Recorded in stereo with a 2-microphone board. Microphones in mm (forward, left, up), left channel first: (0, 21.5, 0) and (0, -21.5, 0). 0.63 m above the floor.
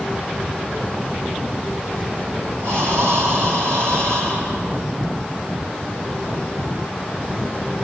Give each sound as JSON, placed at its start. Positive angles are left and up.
{"t": 2.6, "sound": "breathing", "side_deg": -80, "distance_m": 3.0}